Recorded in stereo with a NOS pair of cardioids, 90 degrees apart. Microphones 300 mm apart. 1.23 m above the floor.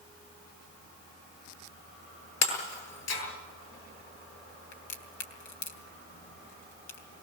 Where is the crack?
70° left, 3 m.